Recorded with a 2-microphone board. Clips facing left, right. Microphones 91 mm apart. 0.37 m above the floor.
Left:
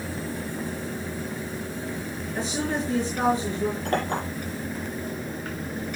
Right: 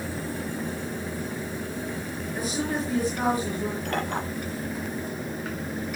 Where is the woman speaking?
25° left (ahead or behind), 5 m.